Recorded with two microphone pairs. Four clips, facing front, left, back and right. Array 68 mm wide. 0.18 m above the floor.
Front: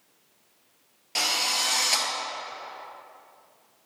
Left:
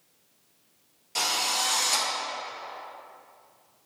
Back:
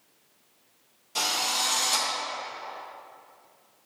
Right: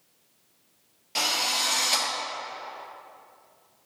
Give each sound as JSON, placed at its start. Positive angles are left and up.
{"t": 1.1, "sound": "a drill", "azimuth_deg": -20, "distance_m": 2.5}